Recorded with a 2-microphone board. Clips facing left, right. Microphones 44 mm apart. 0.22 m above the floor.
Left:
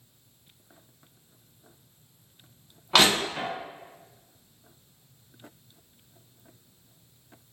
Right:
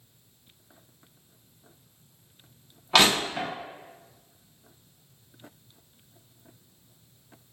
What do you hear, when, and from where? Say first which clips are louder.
2.9 s crushing: even; centre (ahead or behind), 1.2 m